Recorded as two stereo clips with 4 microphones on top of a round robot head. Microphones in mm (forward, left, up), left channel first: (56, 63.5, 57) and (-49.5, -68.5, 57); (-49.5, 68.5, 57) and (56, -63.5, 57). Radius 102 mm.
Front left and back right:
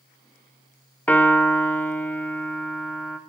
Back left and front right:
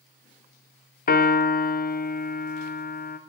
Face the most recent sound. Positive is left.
turn(degrees=130)